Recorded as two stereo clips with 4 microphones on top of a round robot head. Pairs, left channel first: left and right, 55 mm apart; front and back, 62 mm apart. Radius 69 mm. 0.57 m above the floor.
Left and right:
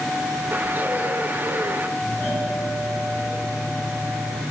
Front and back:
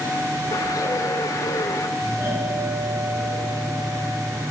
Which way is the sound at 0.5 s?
30° right.